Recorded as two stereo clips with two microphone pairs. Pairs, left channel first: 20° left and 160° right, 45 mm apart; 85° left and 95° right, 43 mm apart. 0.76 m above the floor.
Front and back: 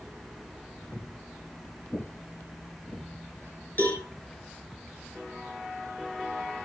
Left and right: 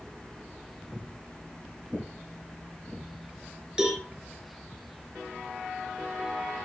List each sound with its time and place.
0.9 s footsteps: 5° left, 2.5 m; by 3.0 s 10° left, 5 m
3.8 s a cowbell: 20° right, 5.5 m